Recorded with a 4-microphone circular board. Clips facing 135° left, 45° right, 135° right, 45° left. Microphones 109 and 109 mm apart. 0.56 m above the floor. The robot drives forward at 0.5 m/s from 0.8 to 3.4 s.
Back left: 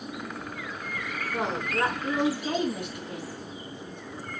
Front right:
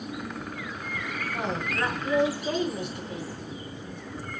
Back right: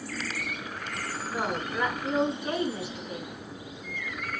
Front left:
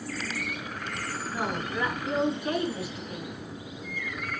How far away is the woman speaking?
About 5.5 m.